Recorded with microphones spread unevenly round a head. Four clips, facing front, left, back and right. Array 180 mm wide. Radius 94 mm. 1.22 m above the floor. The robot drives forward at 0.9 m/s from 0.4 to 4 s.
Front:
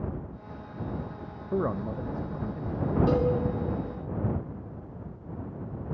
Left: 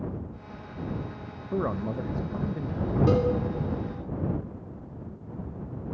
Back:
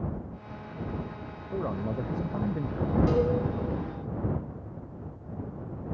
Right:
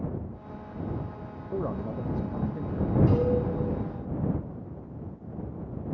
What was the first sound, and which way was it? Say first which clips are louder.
A man speaking: left 3 dB, front 2 dB; 15° right.